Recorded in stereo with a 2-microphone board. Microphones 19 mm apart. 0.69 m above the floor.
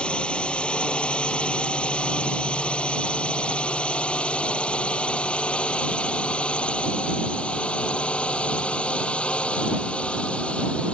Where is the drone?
60° left (ahead or behind); by 10.9 s 75° left (ahead or behind).